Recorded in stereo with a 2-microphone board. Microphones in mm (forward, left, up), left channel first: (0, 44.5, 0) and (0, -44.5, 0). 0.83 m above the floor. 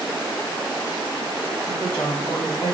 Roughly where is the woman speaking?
Centre.